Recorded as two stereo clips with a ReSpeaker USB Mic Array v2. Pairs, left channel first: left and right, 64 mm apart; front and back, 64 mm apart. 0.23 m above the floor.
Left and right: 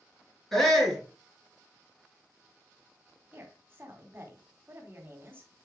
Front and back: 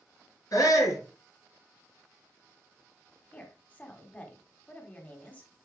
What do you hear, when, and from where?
0.5 s a shout: 5° left, 4.5 m
3.3 s a woman speaking: 55° right, 1.9 m